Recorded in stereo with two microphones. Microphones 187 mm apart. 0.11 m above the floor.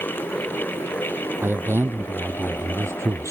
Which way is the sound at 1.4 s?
10° right (ahead or behind).